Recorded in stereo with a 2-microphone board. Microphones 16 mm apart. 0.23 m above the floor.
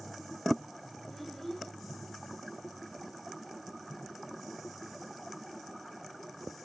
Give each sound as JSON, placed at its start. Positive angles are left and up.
{"t": 1.1, "sound": "a child speaking", "side_deg": 15, "distance_m": 2.5}